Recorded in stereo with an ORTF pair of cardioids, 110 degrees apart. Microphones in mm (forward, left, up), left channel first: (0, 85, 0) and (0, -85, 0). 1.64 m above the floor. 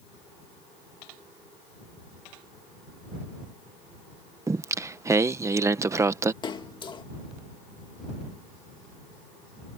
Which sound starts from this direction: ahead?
Singing, at 4.5 s.